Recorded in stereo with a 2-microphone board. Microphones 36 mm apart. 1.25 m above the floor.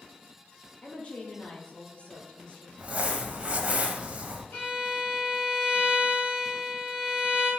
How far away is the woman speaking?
About 0.9 m.